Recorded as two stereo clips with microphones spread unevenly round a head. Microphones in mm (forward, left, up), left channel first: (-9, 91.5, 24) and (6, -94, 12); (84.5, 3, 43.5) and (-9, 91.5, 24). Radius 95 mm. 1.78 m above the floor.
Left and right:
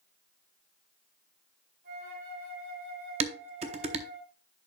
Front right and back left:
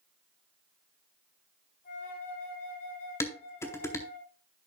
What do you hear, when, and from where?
1.8 s a flute: 45° right, 5 m
3.2 s dishes clattering: 65° right, 0.8 m